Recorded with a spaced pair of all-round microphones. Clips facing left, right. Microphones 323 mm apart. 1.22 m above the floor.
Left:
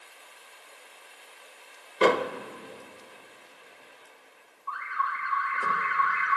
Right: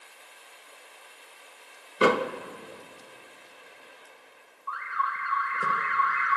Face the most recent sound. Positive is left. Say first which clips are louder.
# even
turn(degrees=-20)  # may be behind; listen again after turning